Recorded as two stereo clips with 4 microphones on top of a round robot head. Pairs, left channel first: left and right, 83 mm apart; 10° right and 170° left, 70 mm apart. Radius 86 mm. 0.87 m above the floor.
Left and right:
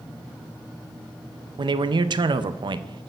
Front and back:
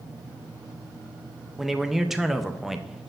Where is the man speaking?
105° right, 0.5 m.